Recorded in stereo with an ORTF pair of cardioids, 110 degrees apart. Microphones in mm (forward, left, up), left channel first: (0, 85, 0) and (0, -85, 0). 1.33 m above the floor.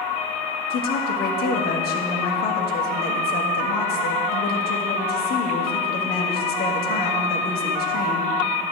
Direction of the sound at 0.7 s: 70° left.